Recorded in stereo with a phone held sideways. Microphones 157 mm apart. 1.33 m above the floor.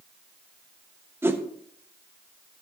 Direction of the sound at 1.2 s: 15° right (ahead or behind).